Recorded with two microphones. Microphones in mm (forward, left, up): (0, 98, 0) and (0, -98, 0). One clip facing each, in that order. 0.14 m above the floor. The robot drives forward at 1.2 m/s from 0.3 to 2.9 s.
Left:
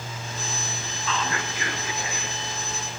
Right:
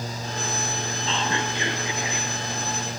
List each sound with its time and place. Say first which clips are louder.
1.1 s whispering: right 1 dB; 30° right (ahead or behind), 1.6 m; by 2.3 s 20° right (ahead or behind), 2.5 m